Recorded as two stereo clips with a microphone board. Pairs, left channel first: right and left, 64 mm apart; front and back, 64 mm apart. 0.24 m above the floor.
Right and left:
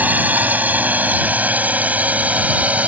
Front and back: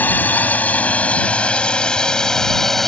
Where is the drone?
45° left; by 2.9 s 80° left.